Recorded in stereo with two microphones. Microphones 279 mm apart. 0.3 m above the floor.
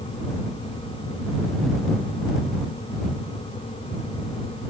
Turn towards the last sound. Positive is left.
No sound to turn to.